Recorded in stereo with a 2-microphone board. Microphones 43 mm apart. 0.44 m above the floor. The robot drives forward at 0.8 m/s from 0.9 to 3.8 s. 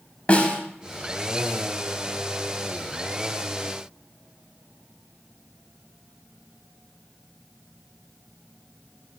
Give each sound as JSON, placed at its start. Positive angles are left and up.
{"t": 0.3, "sound": "a snare drum", "side_deg": 30, "distance_m": 1.0}